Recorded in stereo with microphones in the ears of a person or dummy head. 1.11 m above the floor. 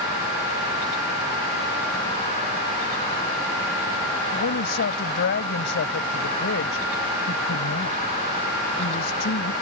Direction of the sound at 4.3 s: 60° left (ahead or behind).